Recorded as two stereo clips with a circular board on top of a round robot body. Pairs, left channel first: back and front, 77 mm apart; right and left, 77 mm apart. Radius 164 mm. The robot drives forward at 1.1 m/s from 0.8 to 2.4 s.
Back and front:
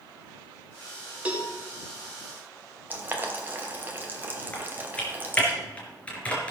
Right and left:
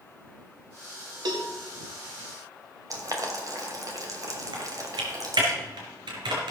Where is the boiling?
60° left, 3 m.